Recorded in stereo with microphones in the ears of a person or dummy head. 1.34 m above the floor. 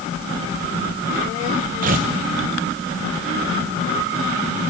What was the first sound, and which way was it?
Tearing paper, 40° right (ahead or behind).